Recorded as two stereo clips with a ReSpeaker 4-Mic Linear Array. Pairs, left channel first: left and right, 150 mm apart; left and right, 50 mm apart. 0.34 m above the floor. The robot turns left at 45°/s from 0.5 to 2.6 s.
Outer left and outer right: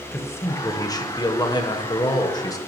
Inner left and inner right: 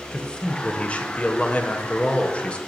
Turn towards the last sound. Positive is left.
turn(degrees=50)